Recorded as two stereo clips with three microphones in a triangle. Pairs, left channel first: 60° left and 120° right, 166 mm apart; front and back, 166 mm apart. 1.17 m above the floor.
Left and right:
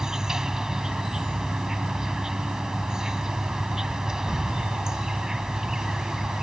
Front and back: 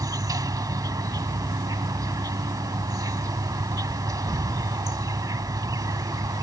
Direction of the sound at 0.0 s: 160° left.